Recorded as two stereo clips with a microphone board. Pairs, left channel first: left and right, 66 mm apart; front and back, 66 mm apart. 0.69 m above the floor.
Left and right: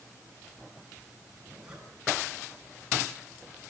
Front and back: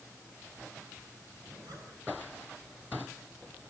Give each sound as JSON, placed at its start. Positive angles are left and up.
{"t": 1.4, "sound": "a zipper", "azimuth_deg": -165, "distance_m": 7.5}